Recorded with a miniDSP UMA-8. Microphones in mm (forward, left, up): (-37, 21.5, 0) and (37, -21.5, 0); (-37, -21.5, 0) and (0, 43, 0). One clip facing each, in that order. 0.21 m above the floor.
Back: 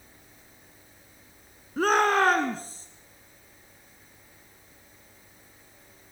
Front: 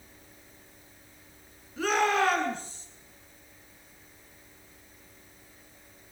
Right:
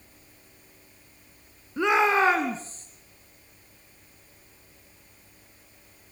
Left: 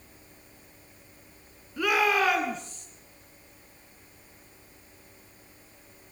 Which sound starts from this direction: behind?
A shout, at 1.8 s.